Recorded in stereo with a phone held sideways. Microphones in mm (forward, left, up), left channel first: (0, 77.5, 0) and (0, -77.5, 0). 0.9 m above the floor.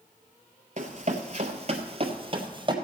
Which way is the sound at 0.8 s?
55° right (ahead or behind).